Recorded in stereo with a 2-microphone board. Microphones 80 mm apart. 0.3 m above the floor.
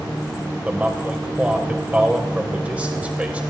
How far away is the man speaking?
About 1.3 m.